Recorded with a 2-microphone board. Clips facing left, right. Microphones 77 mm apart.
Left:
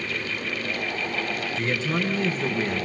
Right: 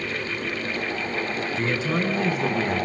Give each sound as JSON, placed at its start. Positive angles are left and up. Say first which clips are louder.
{"t": 1.5, "sound": "a man speaking", "louder": "right 2 dB", "side_deg": 0, "distance_m": 1.7}